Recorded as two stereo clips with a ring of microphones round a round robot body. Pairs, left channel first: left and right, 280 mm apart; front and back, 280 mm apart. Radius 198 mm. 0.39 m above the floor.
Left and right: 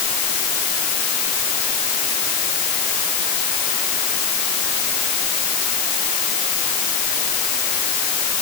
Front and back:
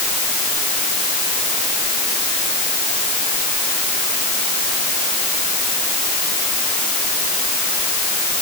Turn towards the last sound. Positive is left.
No sound to turn to.